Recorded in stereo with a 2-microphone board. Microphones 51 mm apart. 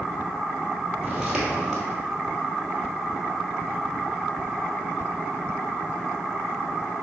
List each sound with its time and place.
1.0 s footsteps: 15° right (ahead or behind), 1.4 m